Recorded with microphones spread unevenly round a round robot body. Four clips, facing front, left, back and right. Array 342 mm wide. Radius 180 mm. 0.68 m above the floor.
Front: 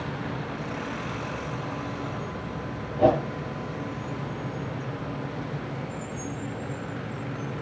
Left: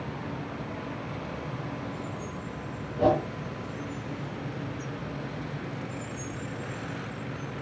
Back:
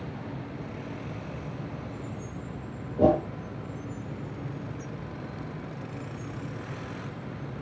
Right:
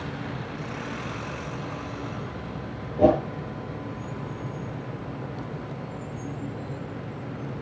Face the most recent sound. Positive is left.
turn(degrees=-155)